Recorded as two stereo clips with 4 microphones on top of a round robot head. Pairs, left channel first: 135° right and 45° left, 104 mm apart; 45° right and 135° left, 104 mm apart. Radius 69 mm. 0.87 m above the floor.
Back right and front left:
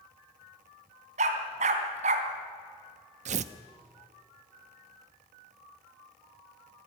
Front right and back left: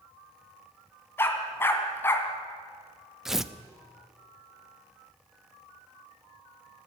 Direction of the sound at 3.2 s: 50° left.